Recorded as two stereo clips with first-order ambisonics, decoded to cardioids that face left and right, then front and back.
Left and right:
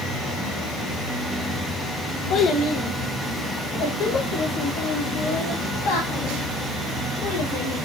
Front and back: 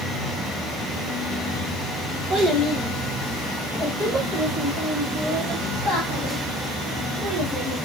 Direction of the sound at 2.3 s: 115° left.